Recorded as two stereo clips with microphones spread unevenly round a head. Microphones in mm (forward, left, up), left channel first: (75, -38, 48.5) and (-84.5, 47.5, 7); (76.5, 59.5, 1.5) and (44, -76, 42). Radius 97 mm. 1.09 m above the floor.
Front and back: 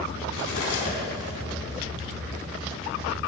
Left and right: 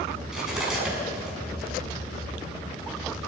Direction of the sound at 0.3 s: 20° right.